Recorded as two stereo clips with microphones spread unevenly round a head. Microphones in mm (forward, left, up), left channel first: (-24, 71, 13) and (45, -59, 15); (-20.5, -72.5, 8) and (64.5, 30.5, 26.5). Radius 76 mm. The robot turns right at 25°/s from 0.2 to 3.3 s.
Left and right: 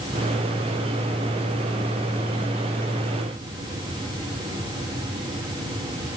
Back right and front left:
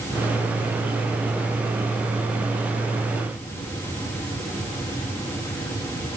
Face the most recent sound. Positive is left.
No sound to turn to.